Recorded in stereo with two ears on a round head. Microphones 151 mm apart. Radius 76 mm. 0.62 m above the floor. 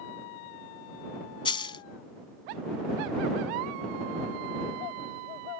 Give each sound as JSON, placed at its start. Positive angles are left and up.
{"t": 1.4, "sound": "a dropped coin", "side_deg": 30}